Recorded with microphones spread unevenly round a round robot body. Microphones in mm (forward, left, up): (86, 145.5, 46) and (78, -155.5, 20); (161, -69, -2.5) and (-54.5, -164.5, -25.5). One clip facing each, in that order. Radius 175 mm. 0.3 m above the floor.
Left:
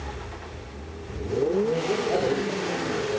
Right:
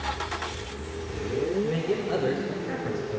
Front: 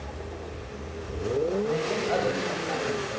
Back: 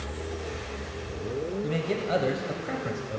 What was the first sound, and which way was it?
A man speaking, 150° right.